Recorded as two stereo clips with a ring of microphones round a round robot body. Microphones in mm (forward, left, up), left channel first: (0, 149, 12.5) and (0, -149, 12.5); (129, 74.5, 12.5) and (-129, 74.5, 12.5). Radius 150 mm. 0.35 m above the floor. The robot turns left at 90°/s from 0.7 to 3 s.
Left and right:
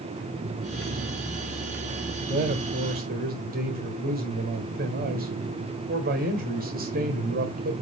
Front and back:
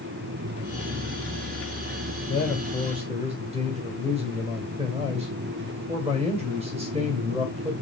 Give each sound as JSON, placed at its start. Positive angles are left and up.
{"t": 2.3, "sound": "a man speaking", "azimuth_deg": -65, "distance_m": 1.7}